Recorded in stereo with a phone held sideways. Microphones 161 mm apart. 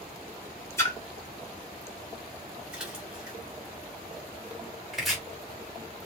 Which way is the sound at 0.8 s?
15° left (ahead or behind).